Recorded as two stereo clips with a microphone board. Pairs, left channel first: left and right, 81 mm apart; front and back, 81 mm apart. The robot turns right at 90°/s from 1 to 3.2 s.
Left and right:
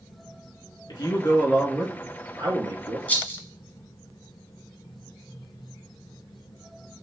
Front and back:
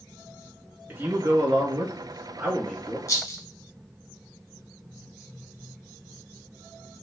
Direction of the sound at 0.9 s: 115° left.